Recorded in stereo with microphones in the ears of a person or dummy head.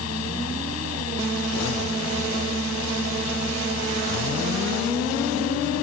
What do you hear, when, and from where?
0.0 s a fan: 80° left